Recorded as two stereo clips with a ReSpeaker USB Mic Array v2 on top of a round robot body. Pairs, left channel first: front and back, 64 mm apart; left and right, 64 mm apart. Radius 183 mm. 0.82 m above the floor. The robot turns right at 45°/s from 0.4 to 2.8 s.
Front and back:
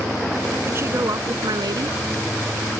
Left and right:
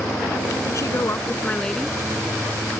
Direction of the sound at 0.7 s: 125° left.